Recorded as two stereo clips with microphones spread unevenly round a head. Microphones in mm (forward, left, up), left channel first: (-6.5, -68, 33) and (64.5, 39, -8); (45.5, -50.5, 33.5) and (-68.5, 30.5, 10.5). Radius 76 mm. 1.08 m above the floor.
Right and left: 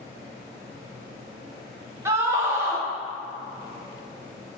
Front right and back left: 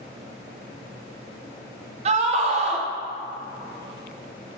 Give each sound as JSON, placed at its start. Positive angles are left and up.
{"t": 2.0, "sound": "a scream", "azimuth_deg": 115, "distance_m": 0.9}